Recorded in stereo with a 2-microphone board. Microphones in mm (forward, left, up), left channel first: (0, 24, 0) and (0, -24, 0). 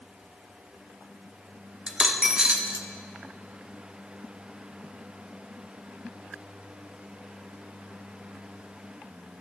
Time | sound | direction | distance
1.9 | a dropped coin | 25° right (ahead or behind) | 1.1 m